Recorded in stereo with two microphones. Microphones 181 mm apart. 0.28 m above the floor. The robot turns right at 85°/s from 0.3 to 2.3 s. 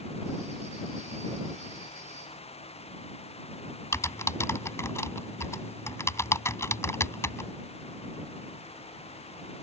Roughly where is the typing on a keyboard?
Centre.